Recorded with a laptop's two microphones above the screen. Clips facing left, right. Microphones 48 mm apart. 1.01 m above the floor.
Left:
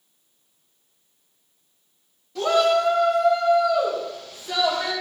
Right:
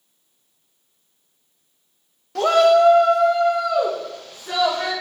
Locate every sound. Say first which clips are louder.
2.4 s a shout: right 5 dB; 70° right (ahead or behind), 1.6 m; by 4.9 s 50° right (ahead or behind), 5 m